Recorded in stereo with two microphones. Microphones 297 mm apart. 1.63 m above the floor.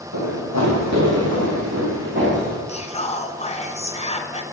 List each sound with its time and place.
0.1 s running footsteps: 65° right (ahead or behind), 4 m; by 2.6 s 35° right (ahead or behind), 4.5 m
2.7 s whispering: 20° left (ahead or behind), 1.3 m